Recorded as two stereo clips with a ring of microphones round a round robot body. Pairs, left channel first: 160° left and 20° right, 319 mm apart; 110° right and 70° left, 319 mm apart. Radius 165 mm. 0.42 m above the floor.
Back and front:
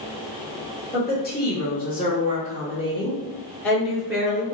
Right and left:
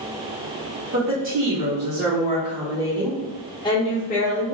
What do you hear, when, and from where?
0.9 s a woman speaking: 105° left, 1.6 m; by 4.5 s 100° right, 1.2 m